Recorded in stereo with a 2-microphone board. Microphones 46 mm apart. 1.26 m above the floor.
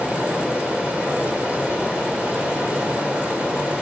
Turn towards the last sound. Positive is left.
turn(degrees=-30)  # may be behind; listen again after turning